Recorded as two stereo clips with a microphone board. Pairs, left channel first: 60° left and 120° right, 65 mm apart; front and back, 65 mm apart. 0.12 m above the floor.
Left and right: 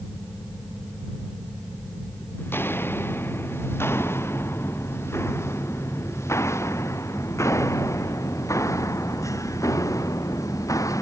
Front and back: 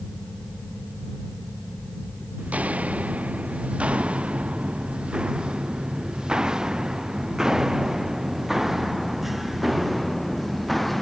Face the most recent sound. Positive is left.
turn(degrees=90)